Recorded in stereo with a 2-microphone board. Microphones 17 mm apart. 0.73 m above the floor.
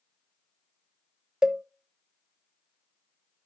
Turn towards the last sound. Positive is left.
turn(degrees=-45)  # may be behind; listen again after turning